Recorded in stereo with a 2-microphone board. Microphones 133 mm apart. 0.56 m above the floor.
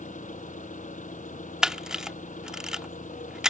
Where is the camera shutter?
5° right (ahead or behind).